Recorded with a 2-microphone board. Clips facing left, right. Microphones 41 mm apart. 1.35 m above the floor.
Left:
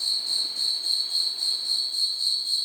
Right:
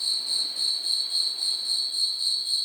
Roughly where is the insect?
Centre.